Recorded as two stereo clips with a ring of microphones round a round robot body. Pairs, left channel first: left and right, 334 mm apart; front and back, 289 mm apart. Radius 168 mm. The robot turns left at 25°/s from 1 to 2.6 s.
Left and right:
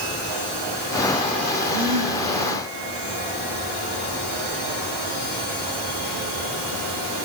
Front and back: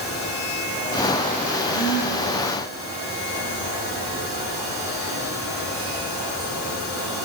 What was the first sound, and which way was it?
A gasp, 45° right.